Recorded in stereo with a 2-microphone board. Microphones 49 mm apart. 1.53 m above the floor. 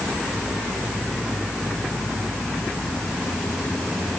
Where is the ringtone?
No ringtone in this recording.